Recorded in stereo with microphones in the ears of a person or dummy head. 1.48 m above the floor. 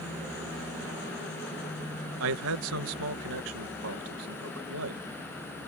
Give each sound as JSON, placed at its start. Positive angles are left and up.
{"t": 2.2, "sound": "a man speaking", "side_deg": -75}